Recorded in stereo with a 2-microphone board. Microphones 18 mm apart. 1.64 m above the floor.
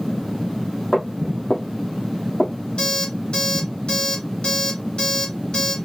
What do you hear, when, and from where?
0.9 s footsteps: 50° left (ahead or behind), 2.5 m
2.8 s an alarm clock: 55° left (ahead or behind), 2.5 m